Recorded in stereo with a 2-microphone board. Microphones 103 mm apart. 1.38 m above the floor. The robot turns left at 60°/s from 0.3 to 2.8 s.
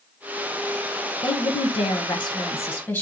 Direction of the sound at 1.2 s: 110° left.